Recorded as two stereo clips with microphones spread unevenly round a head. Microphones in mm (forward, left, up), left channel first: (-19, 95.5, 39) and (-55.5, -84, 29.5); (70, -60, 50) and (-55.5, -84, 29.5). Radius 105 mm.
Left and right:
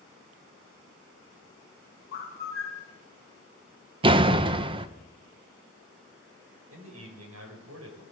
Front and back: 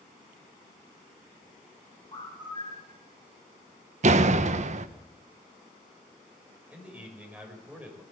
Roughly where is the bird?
Left.